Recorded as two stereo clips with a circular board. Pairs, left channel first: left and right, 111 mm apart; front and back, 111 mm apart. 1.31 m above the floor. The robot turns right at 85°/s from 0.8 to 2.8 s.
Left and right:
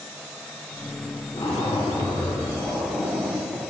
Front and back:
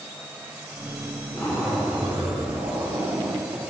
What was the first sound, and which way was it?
A zipper, 60° left.